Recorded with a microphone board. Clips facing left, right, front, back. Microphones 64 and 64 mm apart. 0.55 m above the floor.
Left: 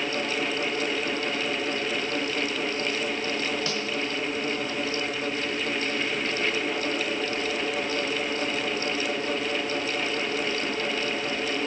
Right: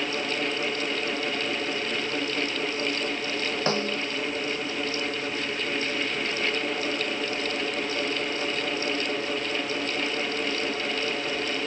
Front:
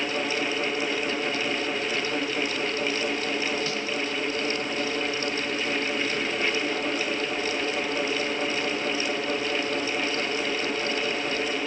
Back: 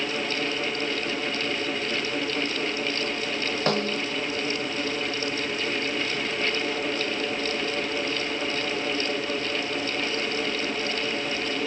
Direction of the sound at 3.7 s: 145° right.